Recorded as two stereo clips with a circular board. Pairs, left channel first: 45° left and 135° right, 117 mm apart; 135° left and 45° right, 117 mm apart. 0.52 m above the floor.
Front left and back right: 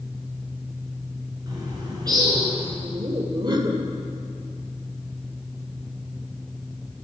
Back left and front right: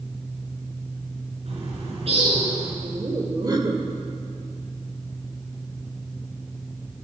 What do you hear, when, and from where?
1.5 s a bird: 80° right, 5 m
2.8 s laughter: 95° right, 1.7 m